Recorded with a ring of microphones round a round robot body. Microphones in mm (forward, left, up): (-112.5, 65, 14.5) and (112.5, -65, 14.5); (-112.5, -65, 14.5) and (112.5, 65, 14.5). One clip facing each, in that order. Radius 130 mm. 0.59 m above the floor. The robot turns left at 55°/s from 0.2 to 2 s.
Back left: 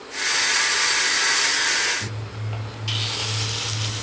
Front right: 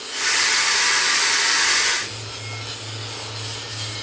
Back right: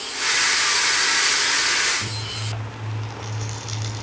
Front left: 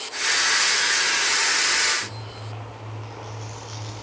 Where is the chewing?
175° right, 2.5 m.